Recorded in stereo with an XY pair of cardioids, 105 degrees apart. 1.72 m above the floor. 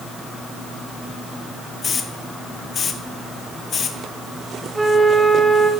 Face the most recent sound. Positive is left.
turn(degrees=-15)